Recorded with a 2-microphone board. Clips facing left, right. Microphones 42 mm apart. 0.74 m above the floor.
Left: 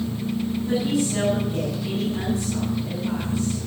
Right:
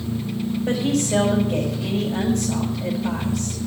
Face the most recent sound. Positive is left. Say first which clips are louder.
# right 2 dB
turn(degrees=-70)  # may be behind; listen again after turning